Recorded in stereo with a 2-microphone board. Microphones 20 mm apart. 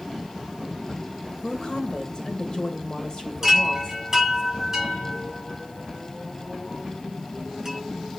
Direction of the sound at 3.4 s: 15° right (ahead or behind).